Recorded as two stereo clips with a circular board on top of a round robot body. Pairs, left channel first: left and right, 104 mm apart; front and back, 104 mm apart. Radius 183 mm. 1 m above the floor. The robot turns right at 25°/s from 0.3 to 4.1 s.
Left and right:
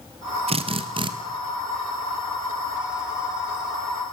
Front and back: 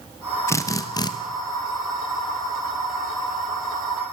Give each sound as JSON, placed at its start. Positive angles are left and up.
{"t": 0.5, "sound": "a drill", "azimuth_deg": -65, "distance_m": 1.3}